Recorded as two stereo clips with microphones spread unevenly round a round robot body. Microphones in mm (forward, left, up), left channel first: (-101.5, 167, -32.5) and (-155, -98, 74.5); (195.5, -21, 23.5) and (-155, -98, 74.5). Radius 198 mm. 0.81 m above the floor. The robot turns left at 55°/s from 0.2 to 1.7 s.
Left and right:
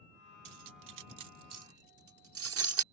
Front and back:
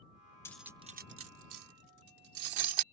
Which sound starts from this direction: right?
Cutlery clinking, at 0.5 s.